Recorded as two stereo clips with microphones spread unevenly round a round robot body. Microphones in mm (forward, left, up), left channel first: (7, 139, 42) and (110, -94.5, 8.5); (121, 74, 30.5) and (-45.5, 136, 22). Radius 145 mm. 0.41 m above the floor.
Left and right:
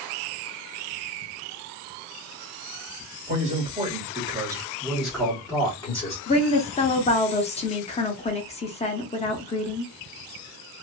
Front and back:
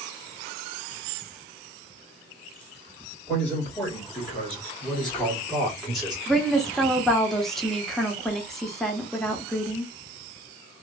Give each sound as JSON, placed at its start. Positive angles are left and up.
{"t": 3.3, "sound": "a man speaking", "azimuth_deg": -100, "distance_m": 1.7}
{"t": 6.3, "sound": "a woman speaking", "azimuth_deg": 70, "distance_m": 0.8}